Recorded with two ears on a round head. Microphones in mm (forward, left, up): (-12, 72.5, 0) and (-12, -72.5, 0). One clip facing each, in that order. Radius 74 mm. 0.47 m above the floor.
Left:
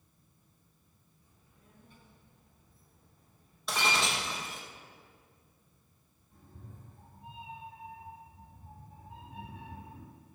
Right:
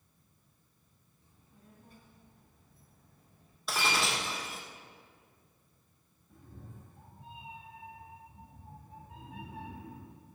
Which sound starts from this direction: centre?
Breaking glass, at 3.7 s.